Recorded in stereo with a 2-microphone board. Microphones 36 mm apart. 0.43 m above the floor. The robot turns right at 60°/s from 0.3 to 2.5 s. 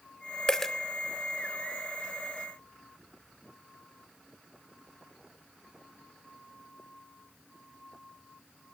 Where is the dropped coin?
20° left (ahead or behind), 0.6 m; by 0.7 s 5° left (ahead or behind), 0.6 m.